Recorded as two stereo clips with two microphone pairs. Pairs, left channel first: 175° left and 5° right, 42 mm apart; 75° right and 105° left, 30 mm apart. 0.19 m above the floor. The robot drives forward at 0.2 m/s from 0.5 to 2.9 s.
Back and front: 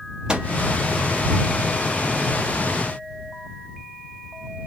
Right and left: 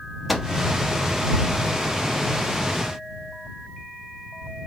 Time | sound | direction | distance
0.3 | a microwave | 25° left | 0.8 m